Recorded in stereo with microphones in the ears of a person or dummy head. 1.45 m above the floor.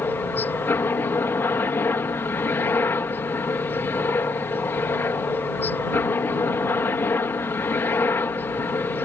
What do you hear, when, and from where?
0.0 s a helicopter: 10° left (ahead or behind)